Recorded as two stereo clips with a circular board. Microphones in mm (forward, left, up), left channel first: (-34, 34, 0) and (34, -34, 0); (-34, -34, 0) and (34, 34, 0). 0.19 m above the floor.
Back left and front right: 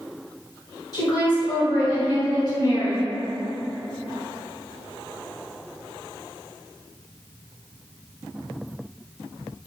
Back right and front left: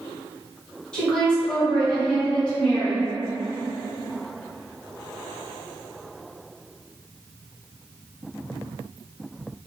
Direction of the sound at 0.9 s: 150° left.